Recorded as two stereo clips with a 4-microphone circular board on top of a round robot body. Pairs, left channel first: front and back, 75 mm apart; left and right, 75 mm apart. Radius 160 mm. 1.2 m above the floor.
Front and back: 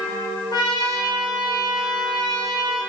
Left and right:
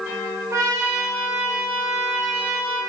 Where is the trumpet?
30° right, 0.9 m.